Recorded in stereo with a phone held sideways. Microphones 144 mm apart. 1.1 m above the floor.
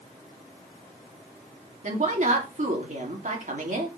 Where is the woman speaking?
60° right (ahead or behind), 2.5 m.